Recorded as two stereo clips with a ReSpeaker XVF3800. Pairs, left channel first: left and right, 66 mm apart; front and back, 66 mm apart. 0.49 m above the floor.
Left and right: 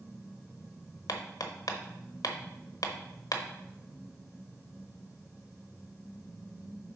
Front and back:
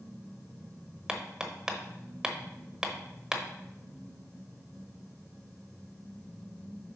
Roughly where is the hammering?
Left.